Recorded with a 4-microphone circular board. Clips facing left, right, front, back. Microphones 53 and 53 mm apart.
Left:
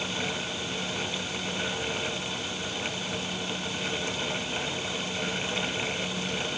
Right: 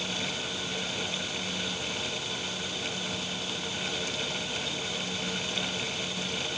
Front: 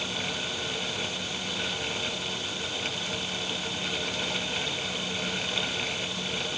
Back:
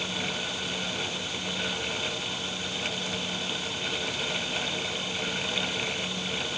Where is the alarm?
No alarm in this recording.